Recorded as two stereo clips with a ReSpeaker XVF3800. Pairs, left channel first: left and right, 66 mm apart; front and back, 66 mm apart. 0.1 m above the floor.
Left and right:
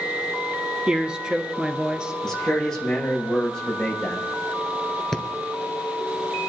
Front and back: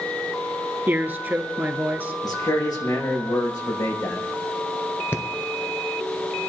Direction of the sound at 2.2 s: 10° left.